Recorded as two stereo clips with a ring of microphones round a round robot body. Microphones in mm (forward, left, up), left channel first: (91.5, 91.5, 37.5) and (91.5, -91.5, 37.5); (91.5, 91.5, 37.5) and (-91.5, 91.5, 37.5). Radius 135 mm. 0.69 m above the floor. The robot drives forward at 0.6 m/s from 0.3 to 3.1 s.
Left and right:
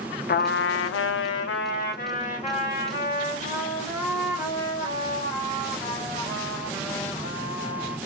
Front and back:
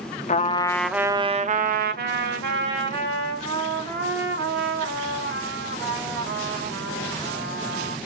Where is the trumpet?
55° left, 0.6 m; by 8.0 s 160° left, 1.4 m.